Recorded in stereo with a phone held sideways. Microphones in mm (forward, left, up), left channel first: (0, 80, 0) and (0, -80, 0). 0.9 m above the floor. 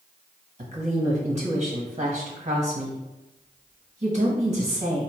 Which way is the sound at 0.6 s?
50° right (ahead or behind).